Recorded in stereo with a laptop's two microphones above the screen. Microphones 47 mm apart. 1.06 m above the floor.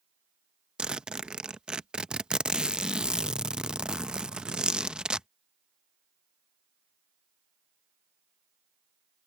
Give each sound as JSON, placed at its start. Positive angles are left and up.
{"t": 0.8, "sound": "a zipper", "side_deg": -20}